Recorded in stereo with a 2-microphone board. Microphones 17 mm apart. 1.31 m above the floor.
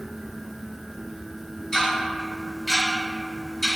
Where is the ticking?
30° left (ahead or behind), 1.5 m.